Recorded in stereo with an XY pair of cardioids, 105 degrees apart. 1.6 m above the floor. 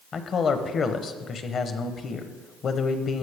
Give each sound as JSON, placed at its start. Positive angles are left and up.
{"t": 0.1, "sound": "a man speaking", "azimuth_deg": 50, "distance_m": 1.0}